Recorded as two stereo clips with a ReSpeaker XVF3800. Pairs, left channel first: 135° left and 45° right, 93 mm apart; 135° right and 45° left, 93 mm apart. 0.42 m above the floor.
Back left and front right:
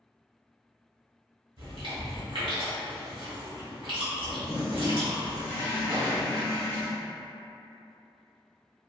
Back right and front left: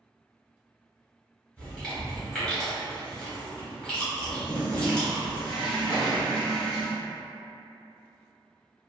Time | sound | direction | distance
1.6 | chewing | 55° right | 1.4 m
4.4 | a toilet flushing | 170° right | 1.0 m
5.9 | an explosion | 30° right | 1.3 m